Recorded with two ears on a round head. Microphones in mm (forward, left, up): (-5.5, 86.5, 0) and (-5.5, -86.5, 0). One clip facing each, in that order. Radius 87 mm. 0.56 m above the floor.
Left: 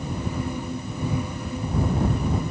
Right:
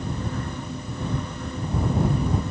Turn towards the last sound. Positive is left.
No sound to turn to.